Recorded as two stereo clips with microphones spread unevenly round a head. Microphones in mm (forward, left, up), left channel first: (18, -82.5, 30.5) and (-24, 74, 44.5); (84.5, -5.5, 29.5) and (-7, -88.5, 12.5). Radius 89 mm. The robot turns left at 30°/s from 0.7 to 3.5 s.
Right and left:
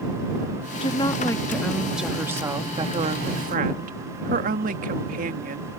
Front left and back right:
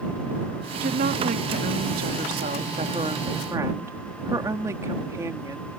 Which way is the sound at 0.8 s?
130° right.